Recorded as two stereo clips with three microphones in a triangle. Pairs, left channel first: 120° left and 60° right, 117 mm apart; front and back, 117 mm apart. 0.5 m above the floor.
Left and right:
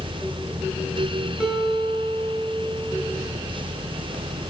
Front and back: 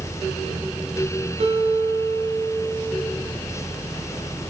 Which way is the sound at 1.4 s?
145° right.